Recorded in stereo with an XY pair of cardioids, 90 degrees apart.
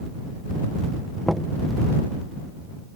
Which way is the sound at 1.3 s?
5° right.